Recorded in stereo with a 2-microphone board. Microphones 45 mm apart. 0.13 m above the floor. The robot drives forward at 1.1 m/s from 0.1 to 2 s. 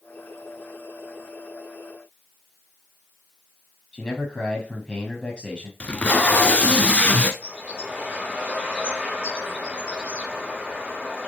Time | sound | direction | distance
3.9 | a man speaking | 20° left (ahead or behind) | 3.5 m
5.8 | tape being pulled | 30° left (ahead or behind) | 1.0 m
7.4 | a bird | 20° right (ahead or behind) | 5.5 m